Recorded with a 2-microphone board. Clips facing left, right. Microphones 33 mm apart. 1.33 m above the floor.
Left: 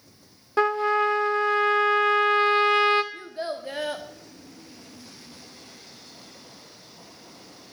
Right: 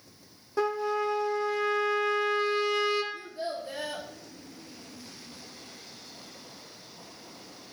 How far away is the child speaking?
About 1.0 m.